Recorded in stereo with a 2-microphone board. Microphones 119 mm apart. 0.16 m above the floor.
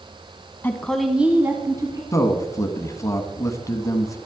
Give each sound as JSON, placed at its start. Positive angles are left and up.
{"t": 0.6, "sound": "a woman speaking", "side_deg": 15, "distance_m": 1.1}
{"t": 2.1, "sound": "a man speaking", "side_deg": 25, "distance_m": 1.1}